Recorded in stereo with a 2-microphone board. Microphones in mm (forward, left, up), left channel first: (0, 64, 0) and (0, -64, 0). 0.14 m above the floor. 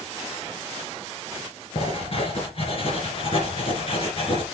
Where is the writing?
50° left (ahead or behind), 2.5 m.